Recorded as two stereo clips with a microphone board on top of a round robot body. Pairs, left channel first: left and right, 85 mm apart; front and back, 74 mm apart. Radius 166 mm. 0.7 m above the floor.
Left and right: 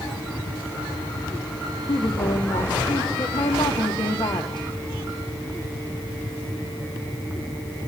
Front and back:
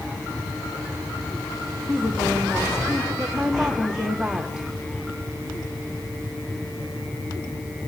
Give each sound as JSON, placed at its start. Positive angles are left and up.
{"t": 1.9, "sound": "a woman speaking", "azimuth_deg": 100, "distance_m": 2.0}